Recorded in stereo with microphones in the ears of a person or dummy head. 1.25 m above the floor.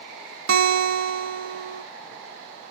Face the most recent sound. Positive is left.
turn(degrees=-70)  # may be behind; listen again after turning